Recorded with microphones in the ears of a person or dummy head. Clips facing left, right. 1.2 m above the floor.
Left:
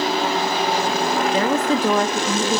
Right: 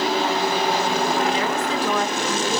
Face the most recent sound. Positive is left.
turn(degrees=45)  # may be behind; listen again after turning